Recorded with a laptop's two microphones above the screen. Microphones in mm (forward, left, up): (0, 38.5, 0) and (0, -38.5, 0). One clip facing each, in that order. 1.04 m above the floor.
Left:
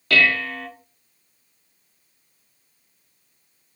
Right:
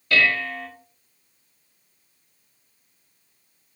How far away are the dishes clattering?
About 1.7 m.